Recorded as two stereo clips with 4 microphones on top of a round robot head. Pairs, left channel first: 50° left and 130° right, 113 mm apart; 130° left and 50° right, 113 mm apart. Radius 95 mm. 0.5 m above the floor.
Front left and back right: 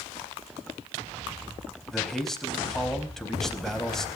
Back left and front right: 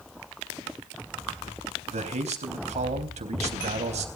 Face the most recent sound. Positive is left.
turn(degrees=-35)